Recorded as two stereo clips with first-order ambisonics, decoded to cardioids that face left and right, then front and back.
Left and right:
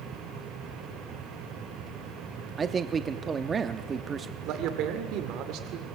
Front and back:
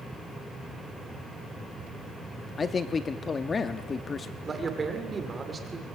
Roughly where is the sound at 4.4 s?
Right.